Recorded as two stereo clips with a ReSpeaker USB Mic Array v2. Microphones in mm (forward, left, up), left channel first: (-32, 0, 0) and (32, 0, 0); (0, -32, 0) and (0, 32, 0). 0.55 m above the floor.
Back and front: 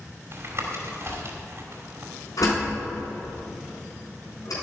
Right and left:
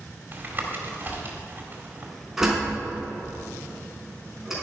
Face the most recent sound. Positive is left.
turn(degrees=175)